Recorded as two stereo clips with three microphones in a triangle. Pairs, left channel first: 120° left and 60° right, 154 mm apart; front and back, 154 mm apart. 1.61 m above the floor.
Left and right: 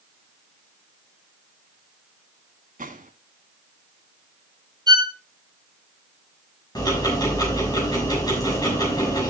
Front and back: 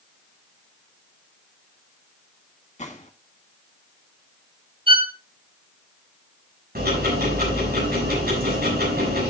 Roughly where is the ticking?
Behind.